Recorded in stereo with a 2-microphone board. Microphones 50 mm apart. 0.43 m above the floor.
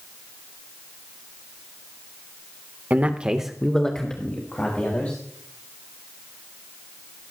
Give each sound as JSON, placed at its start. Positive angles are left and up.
{"t": 2.9, "sound": "a man speaking", "side_deg": -35, "distance_m": 1.1}